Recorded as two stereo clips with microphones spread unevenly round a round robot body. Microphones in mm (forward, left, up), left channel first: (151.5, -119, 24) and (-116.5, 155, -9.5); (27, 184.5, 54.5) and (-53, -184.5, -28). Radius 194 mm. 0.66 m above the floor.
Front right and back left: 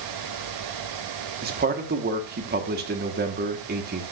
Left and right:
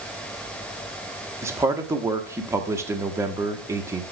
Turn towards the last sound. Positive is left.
turn(degrees=-170)